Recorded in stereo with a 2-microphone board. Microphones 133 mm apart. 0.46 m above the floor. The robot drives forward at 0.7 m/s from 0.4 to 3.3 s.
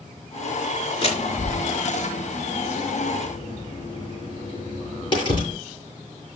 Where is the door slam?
45° left (ahead or behind), 5.5 m; by 5.6 s 35° left (ahead or behind), 7 m.